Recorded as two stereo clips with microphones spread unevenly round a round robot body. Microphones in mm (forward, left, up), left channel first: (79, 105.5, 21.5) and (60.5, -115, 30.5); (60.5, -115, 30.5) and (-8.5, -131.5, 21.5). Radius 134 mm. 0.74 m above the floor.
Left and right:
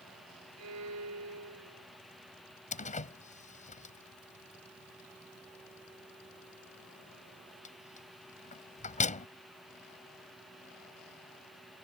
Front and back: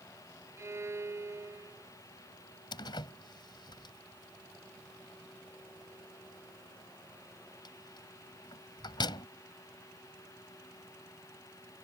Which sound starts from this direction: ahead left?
A door slam, at 2.7 s.